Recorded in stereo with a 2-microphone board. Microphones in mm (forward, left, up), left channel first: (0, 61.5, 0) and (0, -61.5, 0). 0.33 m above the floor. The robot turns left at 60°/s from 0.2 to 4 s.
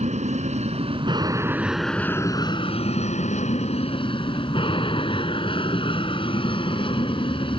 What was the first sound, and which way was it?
An aircraft, 85° right.